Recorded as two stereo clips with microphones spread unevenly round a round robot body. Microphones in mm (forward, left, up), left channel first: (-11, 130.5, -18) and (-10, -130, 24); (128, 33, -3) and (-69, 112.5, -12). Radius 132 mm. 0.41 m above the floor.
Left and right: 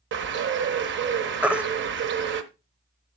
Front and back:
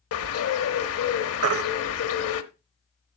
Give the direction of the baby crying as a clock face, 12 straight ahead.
6 o'clock.